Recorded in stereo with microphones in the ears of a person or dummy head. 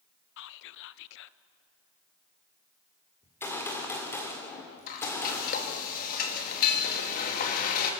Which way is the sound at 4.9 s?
50° left (ahead or behind).